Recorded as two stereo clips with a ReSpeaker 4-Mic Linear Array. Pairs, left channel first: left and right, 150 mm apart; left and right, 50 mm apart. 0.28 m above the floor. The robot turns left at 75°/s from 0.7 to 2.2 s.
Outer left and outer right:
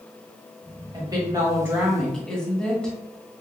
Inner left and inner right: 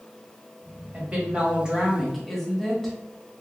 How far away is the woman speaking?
About 1.2 m.